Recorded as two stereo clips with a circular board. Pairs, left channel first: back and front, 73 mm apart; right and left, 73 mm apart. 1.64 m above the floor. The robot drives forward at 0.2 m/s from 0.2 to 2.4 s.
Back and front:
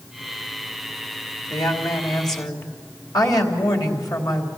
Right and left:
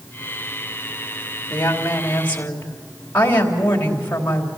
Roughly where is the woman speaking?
Behind right.